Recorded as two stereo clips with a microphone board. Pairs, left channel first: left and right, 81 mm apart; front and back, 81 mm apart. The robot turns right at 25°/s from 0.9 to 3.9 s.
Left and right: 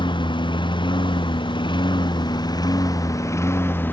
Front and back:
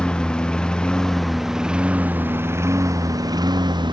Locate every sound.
0.0 s a lawn mower: 80° left; by 3.9 s 155° left